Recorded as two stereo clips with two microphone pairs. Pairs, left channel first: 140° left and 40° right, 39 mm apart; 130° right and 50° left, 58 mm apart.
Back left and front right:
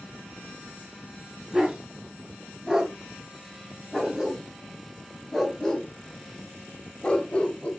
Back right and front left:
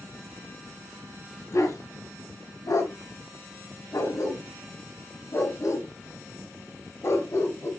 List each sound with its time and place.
1.5 s a dog barking: 110° right, 4.5 m; by 7.7 s 160° right, 3 m